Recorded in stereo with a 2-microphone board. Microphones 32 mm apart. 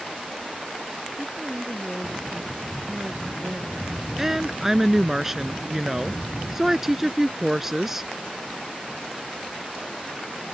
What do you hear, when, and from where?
1.2 s a woman speaking: 10° right (ahead or behind); by 3.9 s 45° right (ahead or behind)
4.2 s a woman speaking: 15° right (ahead or behind)